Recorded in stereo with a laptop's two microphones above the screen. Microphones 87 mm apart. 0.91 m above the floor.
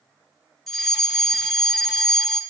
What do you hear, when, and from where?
0.7 s a fire alarm: 5° left (ahead or behind), 2.5 m